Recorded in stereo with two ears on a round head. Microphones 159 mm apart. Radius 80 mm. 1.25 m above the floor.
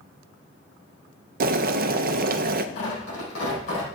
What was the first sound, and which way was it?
Boiling, 50° right (ahead or behind).